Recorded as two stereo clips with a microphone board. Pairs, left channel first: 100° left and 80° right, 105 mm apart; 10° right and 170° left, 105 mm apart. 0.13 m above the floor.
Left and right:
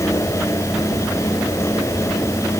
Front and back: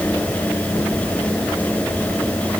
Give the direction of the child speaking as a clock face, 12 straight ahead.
No child speaking in this recording.